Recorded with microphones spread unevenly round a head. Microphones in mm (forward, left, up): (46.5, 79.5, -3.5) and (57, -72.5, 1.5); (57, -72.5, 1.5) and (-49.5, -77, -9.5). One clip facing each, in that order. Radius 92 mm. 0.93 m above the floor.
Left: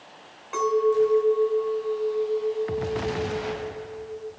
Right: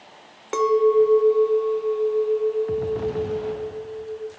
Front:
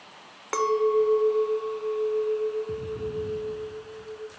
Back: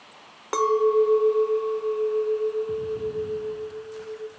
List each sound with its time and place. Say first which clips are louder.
0.5 s a clink: right 4 dB, back 3 dB; 105° right, 1.7 m